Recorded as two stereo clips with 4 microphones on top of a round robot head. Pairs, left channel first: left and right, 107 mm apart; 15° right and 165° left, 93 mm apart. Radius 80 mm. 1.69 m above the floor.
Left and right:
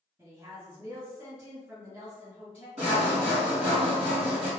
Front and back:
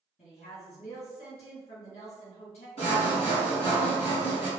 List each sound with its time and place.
0.2 s a woman speaking: 15° right, 1.7 m
2.8 s sawing: 45° right, 1.3 m